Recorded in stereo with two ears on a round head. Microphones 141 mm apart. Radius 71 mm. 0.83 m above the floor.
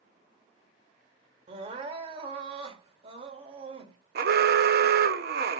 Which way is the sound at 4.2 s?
60° right (ahead or behind).